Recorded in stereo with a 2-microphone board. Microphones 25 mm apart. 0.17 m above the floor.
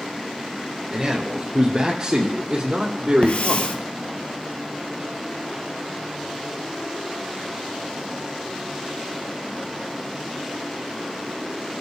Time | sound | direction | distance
0.9 | a man speaking | 25° right (ahead or behind) | 2 m
3.2 | a hiss | 65° left (ahead or behind) | 1.4 m